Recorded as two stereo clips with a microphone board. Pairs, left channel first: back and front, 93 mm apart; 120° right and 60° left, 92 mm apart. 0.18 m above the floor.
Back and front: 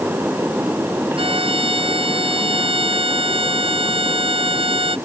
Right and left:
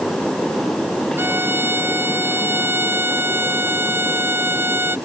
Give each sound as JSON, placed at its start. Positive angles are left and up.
{"t": 1.2, "sound": "a violin", "azimuth_deg": -5}